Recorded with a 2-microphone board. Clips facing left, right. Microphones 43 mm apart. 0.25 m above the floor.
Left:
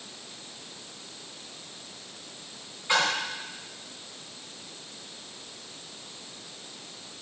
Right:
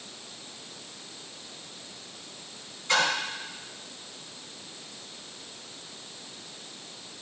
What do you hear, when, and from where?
2.9 s a splash: 20° left (ahead or behind), 3 m